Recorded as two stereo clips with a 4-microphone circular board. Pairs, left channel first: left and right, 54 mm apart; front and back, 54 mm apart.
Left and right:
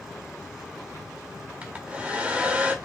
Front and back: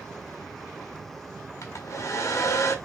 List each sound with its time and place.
1.6 s a hair dryer: 20° right, 1.7 m